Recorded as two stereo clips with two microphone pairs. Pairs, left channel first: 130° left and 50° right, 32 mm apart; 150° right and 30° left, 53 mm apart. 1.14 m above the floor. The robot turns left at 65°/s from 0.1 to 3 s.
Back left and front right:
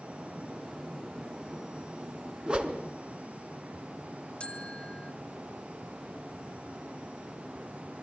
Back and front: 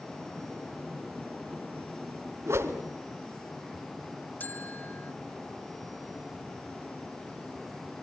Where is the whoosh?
5° left, 2.5 m; by 2.8 s 15° right, 2.5 m.